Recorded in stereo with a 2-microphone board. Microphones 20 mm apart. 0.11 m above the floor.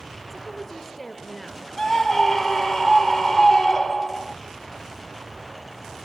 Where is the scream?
30° left (ahead or behind), 3 m.